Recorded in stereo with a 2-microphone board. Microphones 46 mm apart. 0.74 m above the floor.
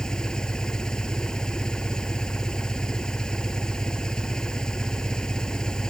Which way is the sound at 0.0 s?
15° left (ahead or behind).